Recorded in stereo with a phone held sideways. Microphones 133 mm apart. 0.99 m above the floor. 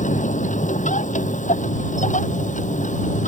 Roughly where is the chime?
No chime in this recording.